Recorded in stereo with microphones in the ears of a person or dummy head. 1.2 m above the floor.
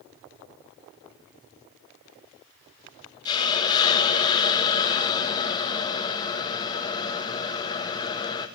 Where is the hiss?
25° left (ahead or behind), 2.0 m.